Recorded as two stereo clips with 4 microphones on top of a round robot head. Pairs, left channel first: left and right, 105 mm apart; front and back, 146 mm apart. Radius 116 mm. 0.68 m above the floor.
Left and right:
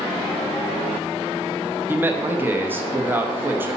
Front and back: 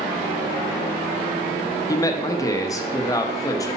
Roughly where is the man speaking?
Ahead right.